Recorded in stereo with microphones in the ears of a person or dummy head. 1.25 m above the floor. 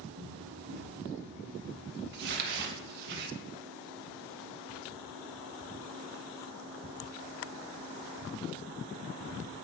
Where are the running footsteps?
35° right (ahead or behind), 1.8 m; by 3.1 s 65° right (ahead or behind), 2.5 m.